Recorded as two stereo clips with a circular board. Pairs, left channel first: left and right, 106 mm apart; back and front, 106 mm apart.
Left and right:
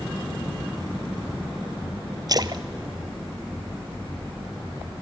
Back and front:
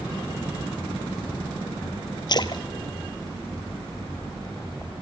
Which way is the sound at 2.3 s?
135° right.